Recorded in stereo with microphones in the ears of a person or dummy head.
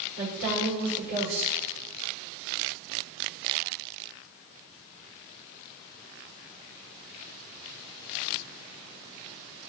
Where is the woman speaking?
45° right (ahead or behind), 5 m.